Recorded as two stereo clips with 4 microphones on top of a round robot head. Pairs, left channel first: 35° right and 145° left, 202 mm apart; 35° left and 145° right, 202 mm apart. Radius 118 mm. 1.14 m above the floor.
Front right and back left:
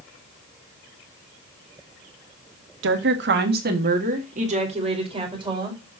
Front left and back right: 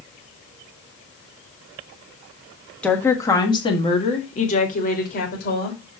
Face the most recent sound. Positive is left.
turn(degrees=75)